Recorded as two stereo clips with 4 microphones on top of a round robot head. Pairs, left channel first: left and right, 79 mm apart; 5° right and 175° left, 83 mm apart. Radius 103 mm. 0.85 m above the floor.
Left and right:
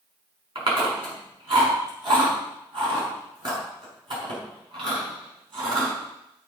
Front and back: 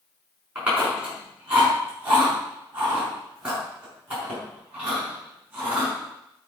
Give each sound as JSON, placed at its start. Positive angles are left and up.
{"t": 0.6, "sound": "chewing", "azimuth_deg": -110, "distance_m": 6.0}